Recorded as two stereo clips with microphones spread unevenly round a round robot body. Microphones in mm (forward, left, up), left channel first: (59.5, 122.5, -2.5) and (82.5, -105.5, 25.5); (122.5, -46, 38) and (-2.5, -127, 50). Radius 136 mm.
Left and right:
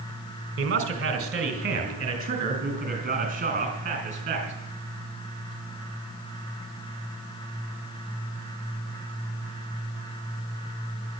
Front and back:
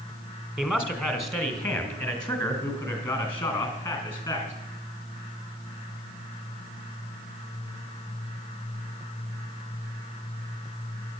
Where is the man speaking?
45° right, 1.9 m; by 4.5 s 25° right, 5 m.